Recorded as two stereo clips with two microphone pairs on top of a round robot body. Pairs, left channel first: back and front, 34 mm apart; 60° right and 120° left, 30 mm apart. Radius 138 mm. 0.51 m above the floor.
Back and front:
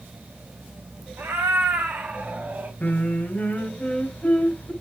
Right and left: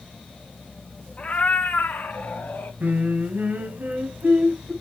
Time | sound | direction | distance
1.2 | a cat meowing | 5° right | 1.4 m
2.8 | singing | 140° left | 1.8 m